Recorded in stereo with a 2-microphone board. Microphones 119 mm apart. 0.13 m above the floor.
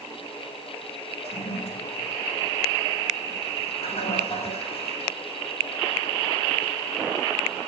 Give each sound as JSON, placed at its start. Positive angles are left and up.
{"t": 1.2, "sound": "a toilet flushing", "side_deg": 60, "distance_m": 6.5}